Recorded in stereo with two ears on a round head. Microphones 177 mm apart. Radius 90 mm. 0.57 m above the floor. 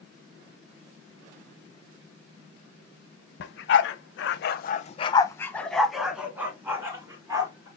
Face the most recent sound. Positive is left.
turn(degrees=-15)  # may be behind; listen again after turning